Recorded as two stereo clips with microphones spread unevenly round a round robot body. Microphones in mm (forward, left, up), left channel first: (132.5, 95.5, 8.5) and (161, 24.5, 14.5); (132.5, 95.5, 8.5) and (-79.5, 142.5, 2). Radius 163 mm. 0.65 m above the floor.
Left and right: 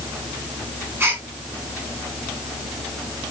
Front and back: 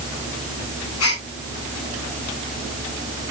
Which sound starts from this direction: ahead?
A gasp, at 1.0 s.